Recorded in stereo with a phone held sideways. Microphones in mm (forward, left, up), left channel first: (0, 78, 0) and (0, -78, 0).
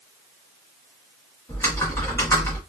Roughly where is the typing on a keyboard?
Centre.